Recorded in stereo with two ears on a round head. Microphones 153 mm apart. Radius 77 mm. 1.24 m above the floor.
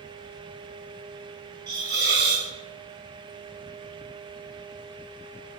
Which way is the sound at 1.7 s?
70° right (ahead or behind).